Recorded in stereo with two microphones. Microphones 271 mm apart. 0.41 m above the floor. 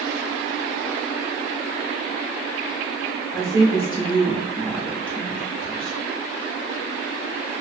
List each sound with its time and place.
3.3 s a woman speaking: 25° left (ahead or behind), 1.7 m; by 6.0 s centre (ahead or behind), 2.5 m